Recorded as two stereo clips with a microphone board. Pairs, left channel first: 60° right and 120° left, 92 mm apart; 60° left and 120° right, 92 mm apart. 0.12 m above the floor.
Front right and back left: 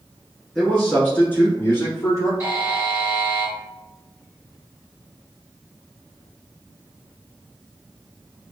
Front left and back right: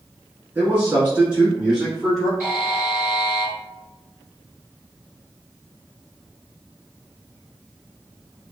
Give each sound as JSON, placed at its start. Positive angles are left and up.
{"t": 0.6, "sound": "a man speaking", "azimuth_deg": -125, "distance_m": 1.1}
{"t": 2.4, "sound": "a buzzer", "azimuth_deg": 180, "distance_m": 1.6}